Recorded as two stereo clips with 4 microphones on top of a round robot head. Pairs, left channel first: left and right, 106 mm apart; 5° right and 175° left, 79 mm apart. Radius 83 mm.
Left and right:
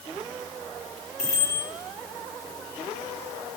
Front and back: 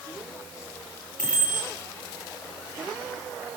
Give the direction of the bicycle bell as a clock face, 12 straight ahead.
10 o'clock.